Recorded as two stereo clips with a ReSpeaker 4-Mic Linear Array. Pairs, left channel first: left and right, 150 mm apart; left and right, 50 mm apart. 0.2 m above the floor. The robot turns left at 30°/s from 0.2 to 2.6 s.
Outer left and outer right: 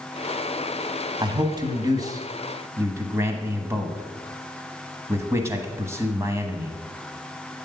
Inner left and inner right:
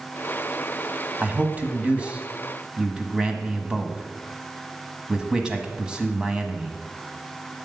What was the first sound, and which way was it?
A man speaking, 30° right (ahead or behind).